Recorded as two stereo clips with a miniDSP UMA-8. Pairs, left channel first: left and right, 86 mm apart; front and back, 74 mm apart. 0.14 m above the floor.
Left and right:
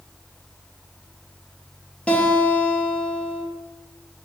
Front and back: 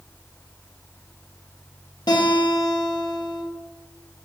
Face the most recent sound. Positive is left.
turn(degrees=15)